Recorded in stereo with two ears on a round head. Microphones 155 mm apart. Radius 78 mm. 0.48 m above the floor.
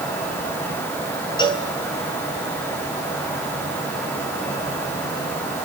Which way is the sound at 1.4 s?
30° left (ahead or behind).